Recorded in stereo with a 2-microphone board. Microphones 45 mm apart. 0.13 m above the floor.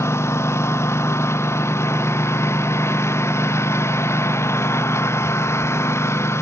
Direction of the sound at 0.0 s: 75° left (ahead or behind).